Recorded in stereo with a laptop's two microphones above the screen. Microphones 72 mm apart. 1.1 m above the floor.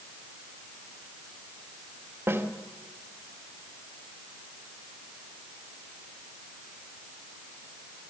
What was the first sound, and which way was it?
A snare drum, 30° right (ahead or behind).